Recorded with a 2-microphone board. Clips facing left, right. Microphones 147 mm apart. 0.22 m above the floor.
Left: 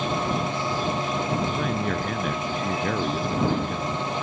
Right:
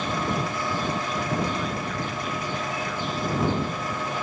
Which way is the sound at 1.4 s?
60° left (ahead or behind).